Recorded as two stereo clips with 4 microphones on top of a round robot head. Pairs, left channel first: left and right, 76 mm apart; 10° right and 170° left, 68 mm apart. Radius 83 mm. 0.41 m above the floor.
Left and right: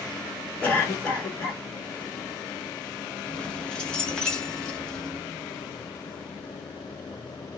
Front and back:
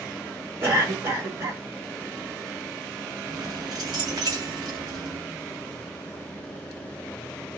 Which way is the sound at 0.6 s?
150° left.